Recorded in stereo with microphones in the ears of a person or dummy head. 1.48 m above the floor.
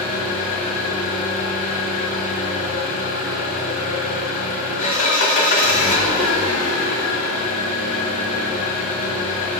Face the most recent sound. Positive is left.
turn(degrees=50)  # may be behind; listen again after turning